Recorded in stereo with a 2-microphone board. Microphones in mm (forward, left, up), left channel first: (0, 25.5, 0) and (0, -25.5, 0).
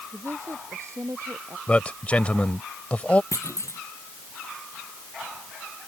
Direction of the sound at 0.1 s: 65° right (ahead or behind).